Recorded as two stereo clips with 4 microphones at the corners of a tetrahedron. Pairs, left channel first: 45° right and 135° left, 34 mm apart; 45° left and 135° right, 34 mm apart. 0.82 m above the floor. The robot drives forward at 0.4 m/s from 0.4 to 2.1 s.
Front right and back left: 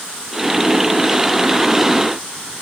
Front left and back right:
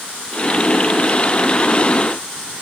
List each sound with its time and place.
Only background noise.